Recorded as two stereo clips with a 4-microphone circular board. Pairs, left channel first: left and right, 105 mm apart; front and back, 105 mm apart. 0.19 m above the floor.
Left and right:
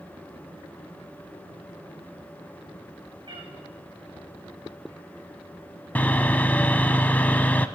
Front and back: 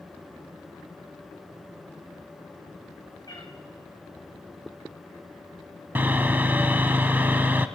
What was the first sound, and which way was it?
A cat meowing, 50° right.